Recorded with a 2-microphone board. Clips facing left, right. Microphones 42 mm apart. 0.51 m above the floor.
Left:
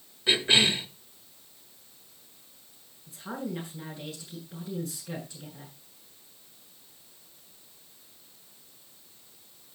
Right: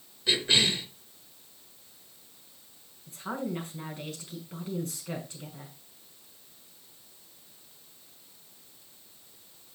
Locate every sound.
0.3 s a cough: 25° left (ahead or behind), 1.7 m
3.1 s a woman speaking: 50° right (ahead or behind), 6 m